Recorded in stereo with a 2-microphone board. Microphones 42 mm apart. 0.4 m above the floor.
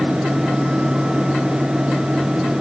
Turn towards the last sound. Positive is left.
No sound to turn to.